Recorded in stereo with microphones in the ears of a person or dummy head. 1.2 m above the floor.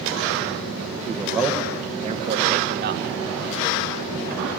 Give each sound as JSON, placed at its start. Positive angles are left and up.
{"t": 1.1, "sound": "a man speaking", "side_deg": 5, "distance_m": 1.5}